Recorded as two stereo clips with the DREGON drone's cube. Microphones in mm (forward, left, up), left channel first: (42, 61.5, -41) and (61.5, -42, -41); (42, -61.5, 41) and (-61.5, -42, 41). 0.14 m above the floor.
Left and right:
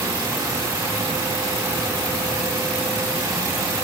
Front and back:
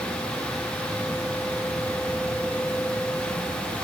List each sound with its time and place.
Only background noise.